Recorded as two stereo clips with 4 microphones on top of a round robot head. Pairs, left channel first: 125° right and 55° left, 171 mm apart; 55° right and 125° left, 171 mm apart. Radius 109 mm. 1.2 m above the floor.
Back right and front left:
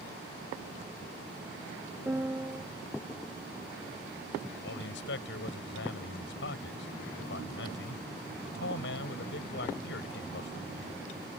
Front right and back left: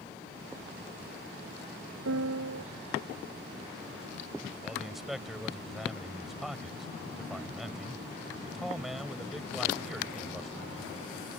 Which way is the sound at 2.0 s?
135° left.